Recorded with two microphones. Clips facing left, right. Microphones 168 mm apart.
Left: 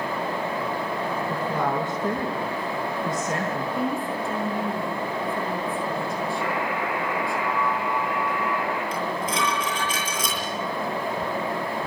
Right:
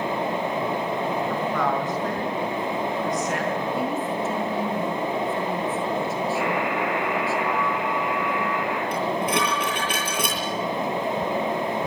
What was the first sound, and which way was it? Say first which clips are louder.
A woman speaking: right 1 dB; 30° left (ahead or behind).